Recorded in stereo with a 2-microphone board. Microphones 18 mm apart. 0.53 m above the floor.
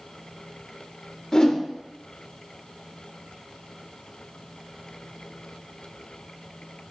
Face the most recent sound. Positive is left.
turn(degrees=40)  # may be behind; listen again after turning